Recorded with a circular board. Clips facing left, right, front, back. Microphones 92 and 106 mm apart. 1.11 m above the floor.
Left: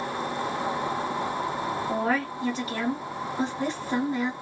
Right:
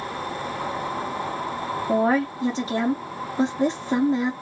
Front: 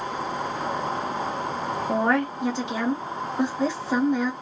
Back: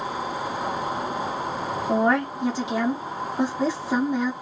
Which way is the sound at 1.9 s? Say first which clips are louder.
Right 8 dB, back 2 dB; 95° right.